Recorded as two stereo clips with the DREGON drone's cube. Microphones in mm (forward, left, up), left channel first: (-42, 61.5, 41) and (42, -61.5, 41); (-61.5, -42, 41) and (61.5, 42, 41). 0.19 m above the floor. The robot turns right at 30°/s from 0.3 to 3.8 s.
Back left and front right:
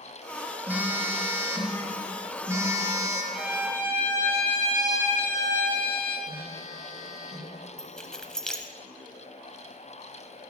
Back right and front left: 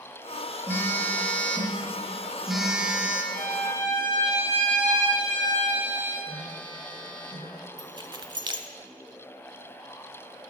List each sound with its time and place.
0.7 s a phone buzzing: 105° right, 1.4 m; by 3.2 s 30° right, 1.4 m
3.3 s a violin: 175° right, 4 m; by 6.2 s 165° right, 4 m
6.3 s a phone buzzing: 115° left, 3.5 m
7.8 s keys jangling: 40° left, 0.7 m